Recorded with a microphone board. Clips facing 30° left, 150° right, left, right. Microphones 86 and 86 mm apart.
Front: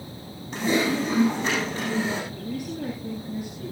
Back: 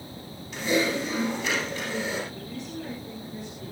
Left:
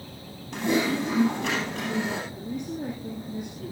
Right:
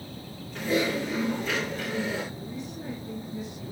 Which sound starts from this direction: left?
Typing on a keyboard, at 0.5 s.